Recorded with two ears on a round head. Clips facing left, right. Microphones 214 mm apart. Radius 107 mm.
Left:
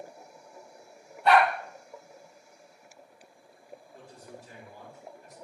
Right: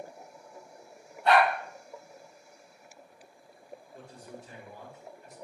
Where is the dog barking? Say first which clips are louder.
Left 1 dB; 60° left (ahead or behind), 1.2 m.